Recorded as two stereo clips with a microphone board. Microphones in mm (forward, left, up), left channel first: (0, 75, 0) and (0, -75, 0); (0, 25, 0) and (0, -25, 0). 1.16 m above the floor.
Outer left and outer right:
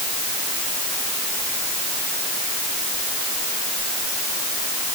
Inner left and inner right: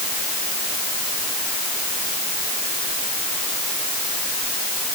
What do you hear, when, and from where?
Only background noise.